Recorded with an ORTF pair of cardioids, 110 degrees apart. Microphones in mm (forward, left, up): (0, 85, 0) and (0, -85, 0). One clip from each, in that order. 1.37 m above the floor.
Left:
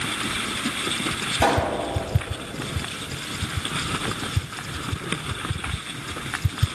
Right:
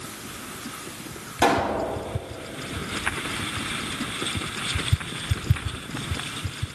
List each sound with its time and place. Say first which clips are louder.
1.4 s a pop: right 1 dB; straight ahead, 5.5 m